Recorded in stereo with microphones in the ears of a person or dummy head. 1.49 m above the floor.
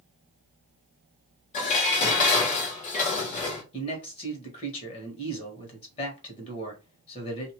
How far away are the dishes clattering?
About 1.0 m.